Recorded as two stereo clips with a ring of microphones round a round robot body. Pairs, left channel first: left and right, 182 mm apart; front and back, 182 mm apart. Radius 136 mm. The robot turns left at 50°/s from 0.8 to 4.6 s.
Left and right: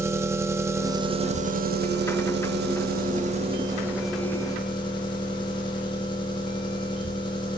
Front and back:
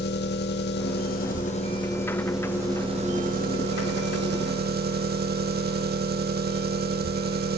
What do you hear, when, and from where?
0.0 s an engine running: 15° right, 0.8 m; by 7.6 s 155° left, 0.8 m